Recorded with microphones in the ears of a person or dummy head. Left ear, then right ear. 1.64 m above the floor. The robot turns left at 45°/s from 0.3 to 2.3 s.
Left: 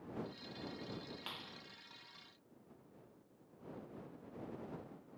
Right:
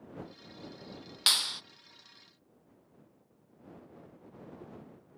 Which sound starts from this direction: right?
A clap, at 1.3 s.